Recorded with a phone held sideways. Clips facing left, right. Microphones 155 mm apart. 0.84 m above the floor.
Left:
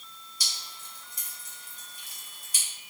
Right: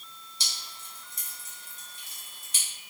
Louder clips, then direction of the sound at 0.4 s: Even; 25° right (ahead or behind).